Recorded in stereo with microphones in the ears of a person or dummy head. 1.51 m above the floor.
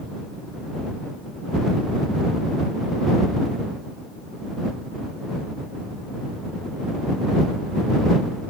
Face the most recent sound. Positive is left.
No sound to turn to.